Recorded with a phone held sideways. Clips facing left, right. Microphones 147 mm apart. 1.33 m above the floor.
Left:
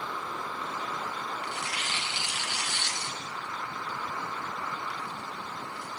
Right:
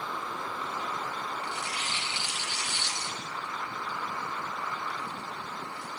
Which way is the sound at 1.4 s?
65° left (ahead or behind).